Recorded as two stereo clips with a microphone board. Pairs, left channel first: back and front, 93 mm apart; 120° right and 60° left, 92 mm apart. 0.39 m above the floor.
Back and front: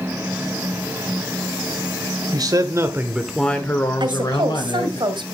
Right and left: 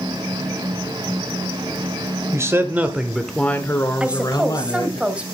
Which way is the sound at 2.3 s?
10° left.